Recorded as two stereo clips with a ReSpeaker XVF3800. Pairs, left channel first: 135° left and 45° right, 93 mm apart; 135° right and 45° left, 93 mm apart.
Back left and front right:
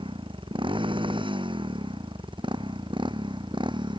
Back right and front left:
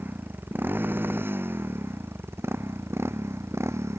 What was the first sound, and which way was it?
A motorcycle, 25° right.